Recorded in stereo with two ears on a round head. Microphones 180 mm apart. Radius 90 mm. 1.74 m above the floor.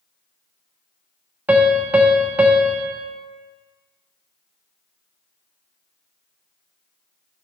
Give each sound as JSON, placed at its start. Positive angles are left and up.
{"t": 1.5, "sound": "a piano", "side_deg": -10, "distance_m": 0.5}